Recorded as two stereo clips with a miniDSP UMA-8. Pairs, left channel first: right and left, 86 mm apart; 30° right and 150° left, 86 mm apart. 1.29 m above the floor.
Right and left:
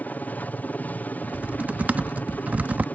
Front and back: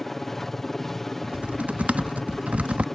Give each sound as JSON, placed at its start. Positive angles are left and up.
{"t": 0.0, "sound": "a helicopter", "azimuth_deg": -110}
{"t": 1.2, "sound": "typing on a keyboard", "azimuth_deg": 110}